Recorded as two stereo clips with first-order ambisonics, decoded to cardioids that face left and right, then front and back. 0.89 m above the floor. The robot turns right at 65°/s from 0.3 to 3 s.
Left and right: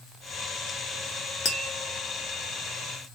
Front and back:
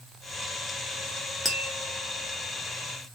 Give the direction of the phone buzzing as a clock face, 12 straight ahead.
I don't hear a phone buzzing.